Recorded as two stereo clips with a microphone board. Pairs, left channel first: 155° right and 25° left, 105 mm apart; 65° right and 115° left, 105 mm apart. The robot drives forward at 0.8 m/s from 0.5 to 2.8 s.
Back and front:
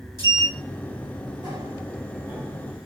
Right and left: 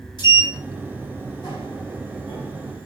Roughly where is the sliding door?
Ahead.